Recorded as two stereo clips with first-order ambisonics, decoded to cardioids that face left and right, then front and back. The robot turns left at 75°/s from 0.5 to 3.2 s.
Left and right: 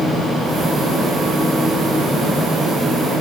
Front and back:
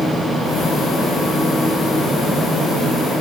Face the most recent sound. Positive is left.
No sound to turn to.